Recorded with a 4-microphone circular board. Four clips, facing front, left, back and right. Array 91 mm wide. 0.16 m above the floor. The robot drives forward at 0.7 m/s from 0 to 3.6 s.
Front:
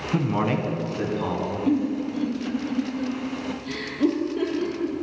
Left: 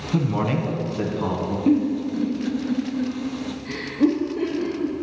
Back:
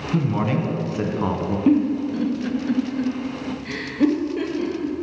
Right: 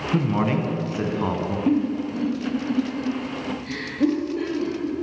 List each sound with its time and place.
0.1 s a man speaking: 30° right, 1.0 m; by 1.6 s 160° right, 1.2 m
1.7 s a giggle: 170° left, 0.8 m; by 5.0 s 175° left, 1.9 m